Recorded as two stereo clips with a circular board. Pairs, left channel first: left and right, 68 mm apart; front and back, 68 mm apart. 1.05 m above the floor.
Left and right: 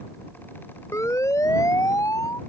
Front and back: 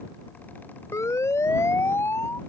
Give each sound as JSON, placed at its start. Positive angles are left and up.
{"t": 0.9, "sound": "a siren", "azimuth_deg": 45}